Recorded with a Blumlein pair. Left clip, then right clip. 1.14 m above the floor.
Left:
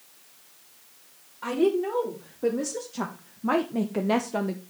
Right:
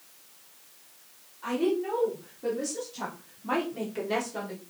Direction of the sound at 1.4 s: 35° left.